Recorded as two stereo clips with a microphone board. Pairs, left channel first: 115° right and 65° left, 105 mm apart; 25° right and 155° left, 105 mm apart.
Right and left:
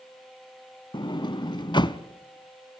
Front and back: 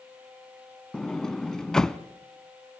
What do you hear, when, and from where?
0.9 s a sliding door: 105° right, 0.6 m